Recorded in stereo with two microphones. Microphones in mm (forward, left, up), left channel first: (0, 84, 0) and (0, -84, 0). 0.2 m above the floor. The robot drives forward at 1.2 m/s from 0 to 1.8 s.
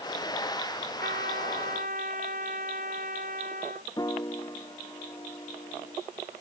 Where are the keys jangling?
I don't hear keys jangling.